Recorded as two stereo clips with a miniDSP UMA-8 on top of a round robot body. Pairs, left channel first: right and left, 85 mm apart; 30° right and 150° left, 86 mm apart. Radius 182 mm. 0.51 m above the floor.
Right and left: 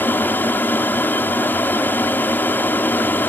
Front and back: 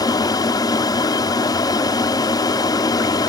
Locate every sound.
0.0 s an aircraft: 30° right